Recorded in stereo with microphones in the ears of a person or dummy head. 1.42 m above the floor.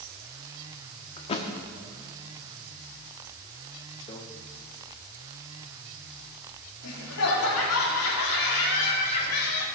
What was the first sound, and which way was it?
A thud, 30° left (ahead or behind).